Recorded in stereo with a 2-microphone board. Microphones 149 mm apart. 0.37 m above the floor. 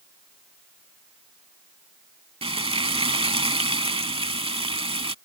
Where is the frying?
40° right (ahead or behind).